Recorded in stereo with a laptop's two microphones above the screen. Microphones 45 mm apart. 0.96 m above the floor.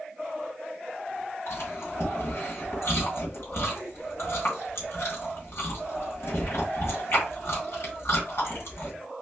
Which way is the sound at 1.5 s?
65° left (ahead or behind).